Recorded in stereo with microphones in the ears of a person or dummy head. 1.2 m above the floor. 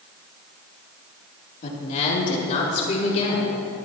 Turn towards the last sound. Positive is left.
turn(degrees=35)  # may be behind; listen again after turning